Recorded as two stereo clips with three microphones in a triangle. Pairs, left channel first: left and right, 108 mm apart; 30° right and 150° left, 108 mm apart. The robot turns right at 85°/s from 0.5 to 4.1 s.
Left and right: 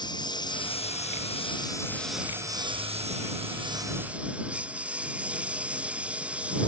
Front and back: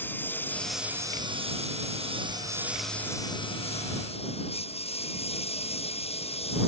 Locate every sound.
0.0 s a lawn mower: 40° left; by 6.7 s 10° right